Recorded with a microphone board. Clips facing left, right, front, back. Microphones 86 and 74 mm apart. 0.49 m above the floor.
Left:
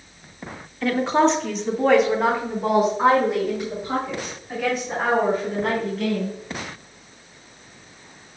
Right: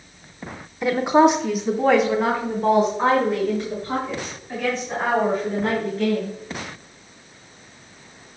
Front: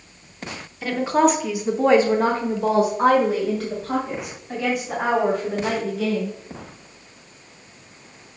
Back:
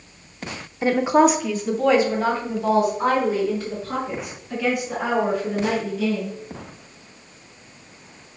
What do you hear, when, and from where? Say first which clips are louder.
0.8 s a woman speaking: right 3 dB, back 2 dB; 150° right, 1.0 m; by 6.3 s 10° left, 5 m